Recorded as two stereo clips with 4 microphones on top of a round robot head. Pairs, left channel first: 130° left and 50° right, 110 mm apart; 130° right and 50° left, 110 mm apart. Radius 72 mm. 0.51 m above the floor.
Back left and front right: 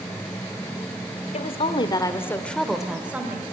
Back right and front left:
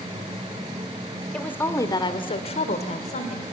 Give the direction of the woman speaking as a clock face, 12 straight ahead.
7 o'clock.